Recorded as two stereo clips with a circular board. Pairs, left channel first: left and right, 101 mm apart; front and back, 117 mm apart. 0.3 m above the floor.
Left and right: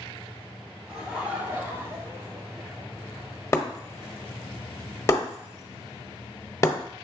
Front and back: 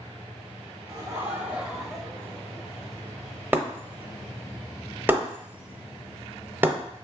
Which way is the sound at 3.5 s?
120° left.